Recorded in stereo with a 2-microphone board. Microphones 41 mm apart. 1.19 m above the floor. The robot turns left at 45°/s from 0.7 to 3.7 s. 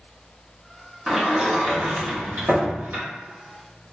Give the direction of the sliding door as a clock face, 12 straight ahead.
12 o'clock.